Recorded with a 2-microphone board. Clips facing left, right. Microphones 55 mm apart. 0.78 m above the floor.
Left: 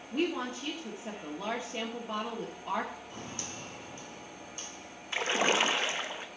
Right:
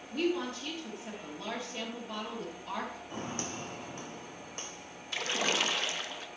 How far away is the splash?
About 0.8 m.